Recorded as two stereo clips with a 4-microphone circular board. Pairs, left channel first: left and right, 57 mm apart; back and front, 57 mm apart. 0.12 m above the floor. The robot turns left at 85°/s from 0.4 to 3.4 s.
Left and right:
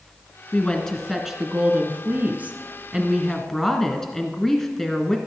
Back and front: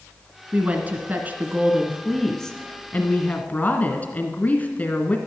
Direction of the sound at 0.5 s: 45° left.